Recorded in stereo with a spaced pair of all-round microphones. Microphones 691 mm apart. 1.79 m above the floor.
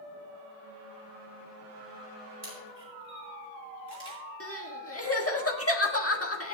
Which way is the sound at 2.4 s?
35° right (ahead or behind).